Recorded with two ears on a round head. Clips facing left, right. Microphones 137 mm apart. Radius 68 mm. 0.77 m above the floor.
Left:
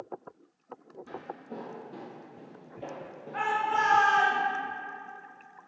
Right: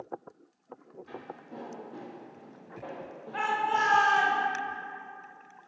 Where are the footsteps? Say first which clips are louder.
Left 3 dB; 60° left (ahead or behind), 1.4 m; by 4.3 s 10° right (ahead or behind), 1.0 m.